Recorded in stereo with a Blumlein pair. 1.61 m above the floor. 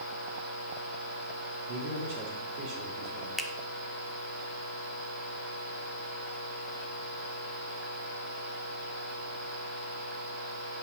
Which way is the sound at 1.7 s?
40° right.